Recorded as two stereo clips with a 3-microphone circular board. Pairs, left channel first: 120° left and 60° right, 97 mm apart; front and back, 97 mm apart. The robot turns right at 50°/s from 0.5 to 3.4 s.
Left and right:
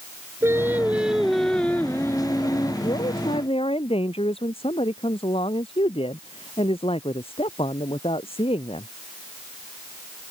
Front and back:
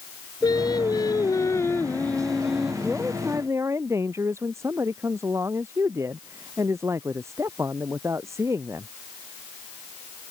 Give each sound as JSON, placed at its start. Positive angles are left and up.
{"t": 0.4, "sound": "singing", "azimuth_deg": -10}
{"t": 2.8, "sound": "a man speaking", "azimuth_deg": 90}